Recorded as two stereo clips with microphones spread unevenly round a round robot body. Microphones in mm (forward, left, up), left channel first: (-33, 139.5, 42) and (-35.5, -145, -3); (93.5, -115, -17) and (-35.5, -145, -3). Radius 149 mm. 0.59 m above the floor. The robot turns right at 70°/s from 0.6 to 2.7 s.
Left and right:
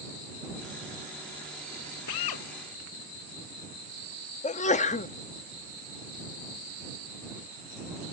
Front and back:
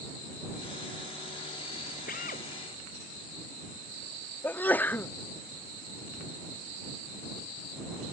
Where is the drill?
55° left; by 2.5 s 80° left.